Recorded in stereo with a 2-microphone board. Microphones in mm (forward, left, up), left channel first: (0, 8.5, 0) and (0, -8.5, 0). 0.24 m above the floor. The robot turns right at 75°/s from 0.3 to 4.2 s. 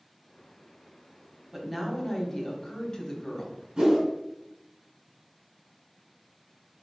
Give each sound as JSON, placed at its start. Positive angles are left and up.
{"t": 1.5, "sound": "a woman speaking", "azimuth_deg": -5, "distance_m": 1.3}
{"t": 3.8, "sound": "a whoosh", "side_deg": -50, "distance_m": 1.8}